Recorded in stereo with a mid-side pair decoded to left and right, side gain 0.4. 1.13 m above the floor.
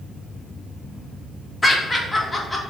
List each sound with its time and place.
1.6 s laughter: 20° left, 1.3 m